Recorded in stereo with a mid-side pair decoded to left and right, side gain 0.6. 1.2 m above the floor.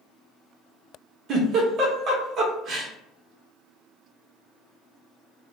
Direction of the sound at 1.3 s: 45° right.